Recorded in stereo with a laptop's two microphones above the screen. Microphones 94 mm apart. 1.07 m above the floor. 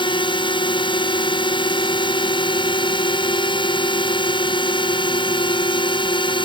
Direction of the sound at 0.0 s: 60° left (ahead or behind).